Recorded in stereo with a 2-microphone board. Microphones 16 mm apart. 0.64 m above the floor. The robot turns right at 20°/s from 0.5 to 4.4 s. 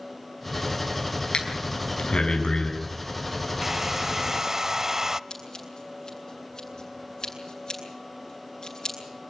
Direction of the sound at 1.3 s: 80° left.